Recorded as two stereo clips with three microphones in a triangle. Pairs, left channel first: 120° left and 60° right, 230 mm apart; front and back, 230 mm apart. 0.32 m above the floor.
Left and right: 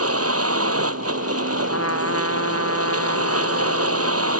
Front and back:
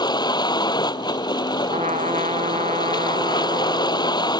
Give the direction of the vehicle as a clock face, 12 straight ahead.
2 o'clock.